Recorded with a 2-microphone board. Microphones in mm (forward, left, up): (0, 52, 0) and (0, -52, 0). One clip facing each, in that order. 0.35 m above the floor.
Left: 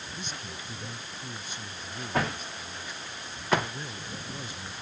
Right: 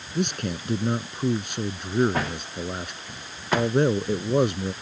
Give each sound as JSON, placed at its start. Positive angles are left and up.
{"t": 0.1, "sound": "a man speaking", "side_deg": -75}